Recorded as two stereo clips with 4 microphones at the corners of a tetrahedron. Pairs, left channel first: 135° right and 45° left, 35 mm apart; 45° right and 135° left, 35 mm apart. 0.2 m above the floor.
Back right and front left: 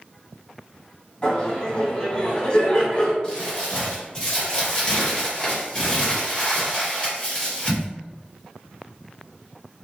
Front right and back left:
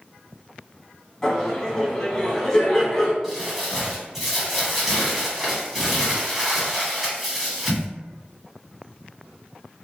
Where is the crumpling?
150° right, 1.6 m.